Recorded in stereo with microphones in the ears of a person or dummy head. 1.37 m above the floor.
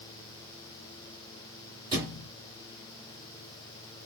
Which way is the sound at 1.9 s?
20° right (ahead or behind).